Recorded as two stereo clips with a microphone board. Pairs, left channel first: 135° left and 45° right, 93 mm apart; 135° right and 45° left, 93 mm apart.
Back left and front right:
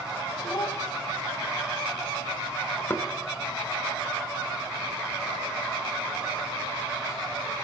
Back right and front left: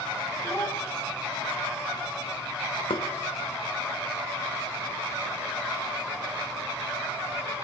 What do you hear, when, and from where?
0.4 s a child speaking: 160° left, 3 m
2.9 s knocking: 160° right, 0.7 m